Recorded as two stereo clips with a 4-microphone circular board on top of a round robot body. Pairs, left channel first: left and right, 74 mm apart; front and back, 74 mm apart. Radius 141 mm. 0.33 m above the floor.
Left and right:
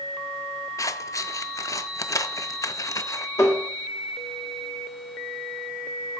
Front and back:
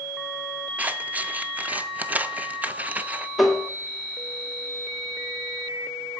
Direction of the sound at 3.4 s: 95° left.